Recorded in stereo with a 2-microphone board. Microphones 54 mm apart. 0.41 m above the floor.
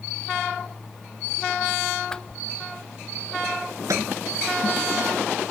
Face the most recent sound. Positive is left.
turn(degrees=-80)